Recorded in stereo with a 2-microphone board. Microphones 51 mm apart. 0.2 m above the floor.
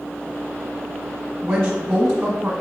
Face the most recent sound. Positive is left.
turn(degrees=-20)  # may be behind; listen again after turning